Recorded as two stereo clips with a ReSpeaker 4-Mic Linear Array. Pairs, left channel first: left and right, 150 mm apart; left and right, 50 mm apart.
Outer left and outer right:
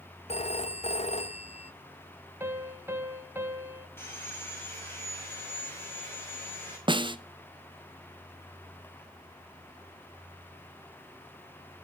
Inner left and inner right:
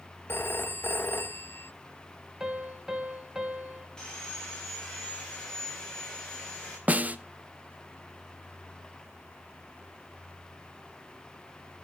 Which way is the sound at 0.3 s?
45° left (ahead or behind).